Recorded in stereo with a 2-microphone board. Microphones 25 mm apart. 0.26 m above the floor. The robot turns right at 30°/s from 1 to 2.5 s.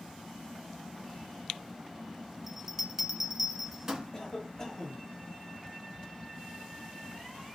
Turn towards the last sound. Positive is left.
turn(degrees=20)  # may be behind; listen again after turning